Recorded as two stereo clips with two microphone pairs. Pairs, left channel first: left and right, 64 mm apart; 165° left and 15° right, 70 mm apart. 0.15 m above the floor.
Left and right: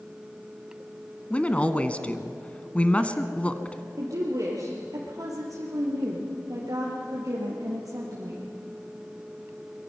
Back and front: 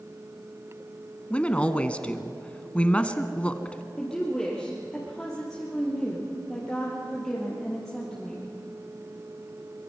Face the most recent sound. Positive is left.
turn(degrees=-110)